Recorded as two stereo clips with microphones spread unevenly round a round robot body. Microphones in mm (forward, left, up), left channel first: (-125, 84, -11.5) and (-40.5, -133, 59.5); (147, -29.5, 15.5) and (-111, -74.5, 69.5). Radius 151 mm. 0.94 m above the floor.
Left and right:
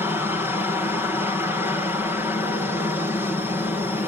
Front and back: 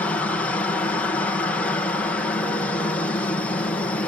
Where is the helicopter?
45° left.